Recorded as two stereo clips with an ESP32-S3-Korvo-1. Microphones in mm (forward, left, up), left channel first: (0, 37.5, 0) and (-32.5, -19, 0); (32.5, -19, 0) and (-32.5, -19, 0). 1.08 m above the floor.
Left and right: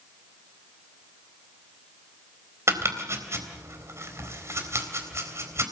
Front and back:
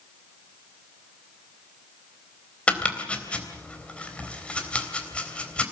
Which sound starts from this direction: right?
Chopping, at 2.7 s.